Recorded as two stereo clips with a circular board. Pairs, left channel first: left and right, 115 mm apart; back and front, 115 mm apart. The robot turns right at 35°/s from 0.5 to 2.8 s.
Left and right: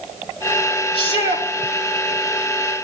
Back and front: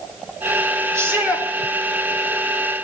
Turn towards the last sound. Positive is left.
turn(degrees=130)